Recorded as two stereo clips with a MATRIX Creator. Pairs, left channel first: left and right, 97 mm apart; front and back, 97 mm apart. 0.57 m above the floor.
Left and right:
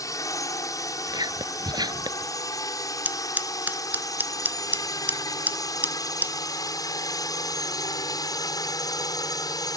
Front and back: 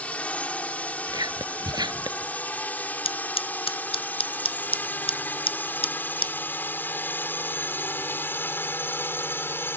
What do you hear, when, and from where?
0.0 s a drone: 70° left; by 9.8 s 60° left
1.1 s whispering: 135° right
3.0 s scissors: 15° right